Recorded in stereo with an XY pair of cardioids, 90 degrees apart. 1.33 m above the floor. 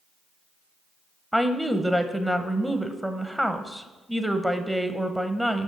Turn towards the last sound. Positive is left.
turn(degrees=-5)